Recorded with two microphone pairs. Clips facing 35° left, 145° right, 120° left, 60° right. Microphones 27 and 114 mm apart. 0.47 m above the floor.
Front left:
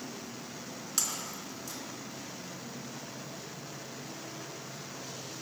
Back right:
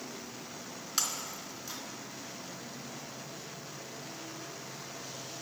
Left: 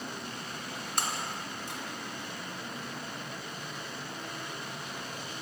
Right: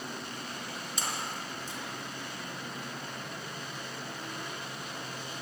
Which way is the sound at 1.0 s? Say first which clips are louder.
Back right 1 dB, left 3 dB; 145° left.